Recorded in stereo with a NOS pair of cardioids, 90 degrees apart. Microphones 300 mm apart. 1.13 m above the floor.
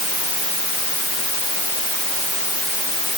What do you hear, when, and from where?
Only background noise.